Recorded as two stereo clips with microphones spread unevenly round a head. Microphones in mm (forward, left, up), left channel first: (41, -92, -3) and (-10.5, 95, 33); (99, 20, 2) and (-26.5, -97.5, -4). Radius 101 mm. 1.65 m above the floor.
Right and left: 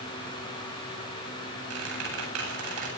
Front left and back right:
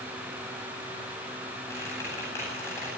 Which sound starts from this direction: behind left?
A squeak, at 1.7 s.